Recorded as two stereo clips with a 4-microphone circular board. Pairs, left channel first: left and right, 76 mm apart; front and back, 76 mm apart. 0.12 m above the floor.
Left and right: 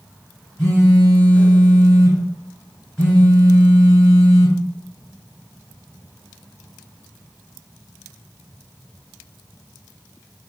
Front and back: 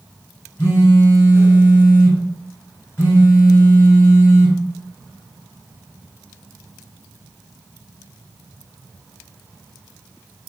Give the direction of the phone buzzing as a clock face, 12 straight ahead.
11 o'clock.